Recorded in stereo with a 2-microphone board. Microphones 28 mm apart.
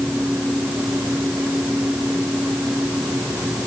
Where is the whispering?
No whispering in this recording.